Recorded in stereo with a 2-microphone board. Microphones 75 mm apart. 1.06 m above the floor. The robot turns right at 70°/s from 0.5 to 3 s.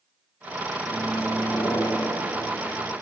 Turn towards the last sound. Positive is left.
turn(degrees=135)